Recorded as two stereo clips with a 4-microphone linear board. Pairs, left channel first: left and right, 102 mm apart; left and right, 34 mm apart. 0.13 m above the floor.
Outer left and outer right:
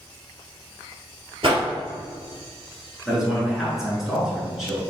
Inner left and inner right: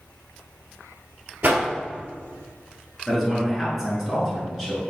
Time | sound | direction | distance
1.4 | a whoosh | 65° right (ahead or behind) | 1.0 m
3.1 | a man speaking | 5° right (ahead or behind) | 1.6 m